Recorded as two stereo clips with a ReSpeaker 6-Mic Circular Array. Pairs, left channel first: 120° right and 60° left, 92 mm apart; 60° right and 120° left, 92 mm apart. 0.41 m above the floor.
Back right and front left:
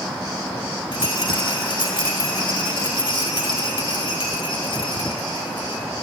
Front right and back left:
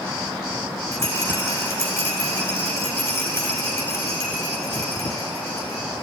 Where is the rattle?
120° right, 3 m.